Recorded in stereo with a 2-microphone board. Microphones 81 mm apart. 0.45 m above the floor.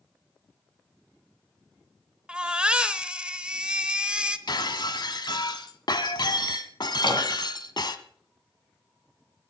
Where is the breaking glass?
65° left (ahead or behind), 1.1 m.